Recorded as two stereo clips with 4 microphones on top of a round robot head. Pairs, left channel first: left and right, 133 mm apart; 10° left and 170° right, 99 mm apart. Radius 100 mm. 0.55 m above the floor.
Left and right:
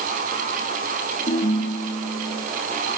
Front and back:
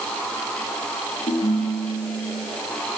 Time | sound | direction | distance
1.3 | a ringtone | 50° left | 7 m